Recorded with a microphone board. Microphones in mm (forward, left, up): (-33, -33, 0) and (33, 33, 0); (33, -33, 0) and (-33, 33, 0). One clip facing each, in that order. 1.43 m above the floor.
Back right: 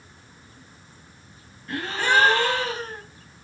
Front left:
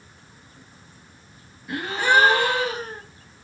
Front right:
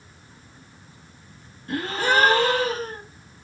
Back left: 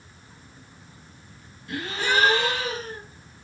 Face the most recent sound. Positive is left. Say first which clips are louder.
# front left 2 dB, front right 4 dB
turn(degrees=-30)